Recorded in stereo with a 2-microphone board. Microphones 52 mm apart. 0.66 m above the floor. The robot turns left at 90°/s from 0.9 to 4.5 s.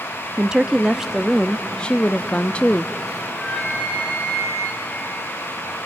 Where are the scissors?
I don't hear scissors.